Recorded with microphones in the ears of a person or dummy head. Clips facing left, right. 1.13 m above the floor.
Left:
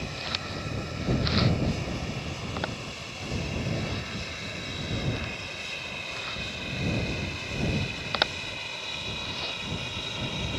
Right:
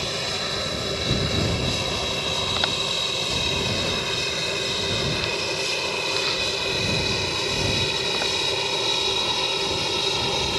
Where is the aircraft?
65° right (ahead or behind); by 10.6 s 75° right (ahead or behind).